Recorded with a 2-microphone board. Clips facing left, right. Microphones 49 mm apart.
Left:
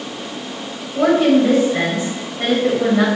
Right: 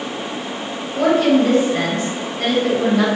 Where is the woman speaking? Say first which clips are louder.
Left 1 dB; 10° left (ahead or behind), 1.6 m.